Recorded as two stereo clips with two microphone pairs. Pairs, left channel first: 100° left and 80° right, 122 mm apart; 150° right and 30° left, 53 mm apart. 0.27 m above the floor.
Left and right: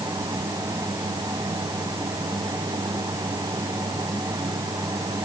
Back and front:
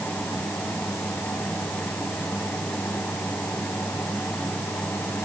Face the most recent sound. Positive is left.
No sound to turn to.